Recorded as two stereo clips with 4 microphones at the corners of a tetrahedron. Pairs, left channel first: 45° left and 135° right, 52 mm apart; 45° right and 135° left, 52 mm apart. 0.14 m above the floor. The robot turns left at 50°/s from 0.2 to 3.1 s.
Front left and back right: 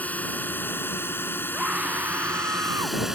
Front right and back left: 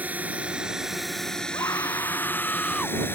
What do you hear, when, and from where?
0.0 s a drone: 90° left; by 3.1 s 55° right
1.5 s a scream: 55° right; by 3.0 s 130° right